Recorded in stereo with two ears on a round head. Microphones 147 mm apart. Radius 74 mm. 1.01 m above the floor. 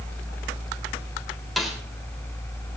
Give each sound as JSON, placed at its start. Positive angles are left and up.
{"t": 1.6, "sound": "a snare drum", "side_deg": 0, "distance_m": 3.5}